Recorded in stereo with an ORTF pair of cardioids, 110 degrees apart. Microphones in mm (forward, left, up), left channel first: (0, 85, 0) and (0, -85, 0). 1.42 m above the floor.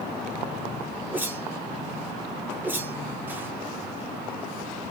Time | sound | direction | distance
1.1 | a whoosh | 10° right | 0.9 m